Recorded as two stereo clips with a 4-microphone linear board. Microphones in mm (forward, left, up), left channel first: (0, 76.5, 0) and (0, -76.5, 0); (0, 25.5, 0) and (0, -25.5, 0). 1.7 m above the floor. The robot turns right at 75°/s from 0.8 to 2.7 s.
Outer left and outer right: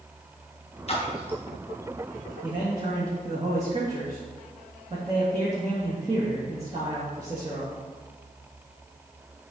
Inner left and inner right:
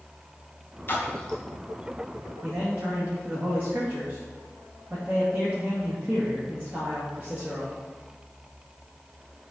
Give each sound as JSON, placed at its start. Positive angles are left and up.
{"t": 0.9, "sound": "a splash", "side_deg": 45, "distance_m": 1.5}
{"t": 2.4, "sound": "a man speaking", "side_deg": -25, "distance_m": 2.5}